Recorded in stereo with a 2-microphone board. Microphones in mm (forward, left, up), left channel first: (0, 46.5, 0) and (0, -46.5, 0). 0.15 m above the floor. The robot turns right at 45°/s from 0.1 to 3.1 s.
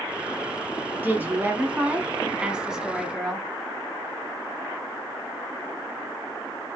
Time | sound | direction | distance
1.0 | a woman speaking | 20° right (ahead or behind) | 1.0 m